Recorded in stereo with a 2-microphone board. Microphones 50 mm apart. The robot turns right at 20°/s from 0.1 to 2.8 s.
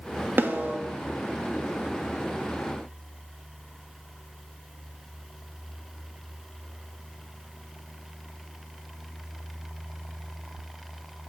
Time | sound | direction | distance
0.4 | a snare drum | 45° right (ahead or behind) | 1.9 m